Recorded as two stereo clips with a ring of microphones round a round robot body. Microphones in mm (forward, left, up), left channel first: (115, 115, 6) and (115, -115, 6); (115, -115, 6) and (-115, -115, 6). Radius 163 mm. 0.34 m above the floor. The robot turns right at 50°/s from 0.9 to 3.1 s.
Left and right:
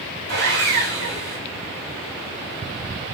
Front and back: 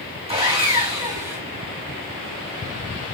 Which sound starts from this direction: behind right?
Sawing, at 0.3 s.